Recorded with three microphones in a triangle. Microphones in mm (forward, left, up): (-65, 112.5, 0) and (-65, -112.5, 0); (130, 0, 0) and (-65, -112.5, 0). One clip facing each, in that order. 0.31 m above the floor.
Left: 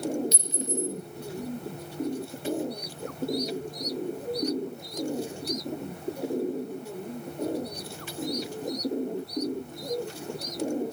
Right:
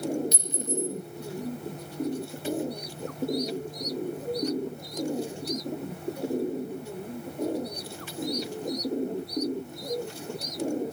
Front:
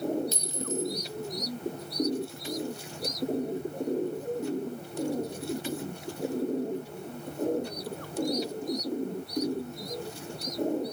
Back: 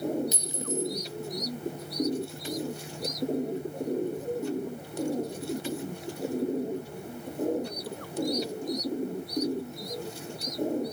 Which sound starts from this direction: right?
A clink, at 0.3 s.